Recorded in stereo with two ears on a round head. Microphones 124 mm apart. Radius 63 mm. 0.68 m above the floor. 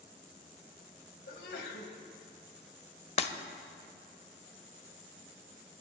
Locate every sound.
1.3 s a sneeze: 80° left, 3.5 m
3.2 s breaking glass: 45° left (ahead or behind), 0.9 m